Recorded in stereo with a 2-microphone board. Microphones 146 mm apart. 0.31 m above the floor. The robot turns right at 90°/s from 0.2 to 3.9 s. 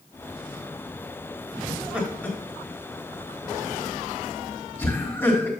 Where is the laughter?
30° right (ahead or behind), 2.5 m; by 5.5 s 15° left (ahead or behind), 2.5 m.